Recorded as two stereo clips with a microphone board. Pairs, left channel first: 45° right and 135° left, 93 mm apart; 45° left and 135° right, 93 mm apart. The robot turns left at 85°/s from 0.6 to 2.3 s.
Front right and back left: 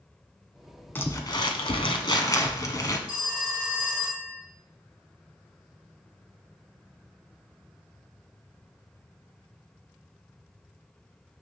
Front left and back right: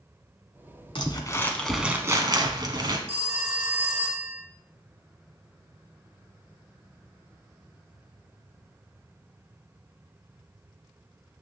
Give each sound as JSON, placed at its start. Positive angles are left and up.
{"t": 0.9, "sound": "crumpling", "azimuth_deg": 20, "distance_m": 1.2}
{"t": 3.1, "sound": "a phone ringing", "azimuth_deg": -150, "distance_m": 1.3}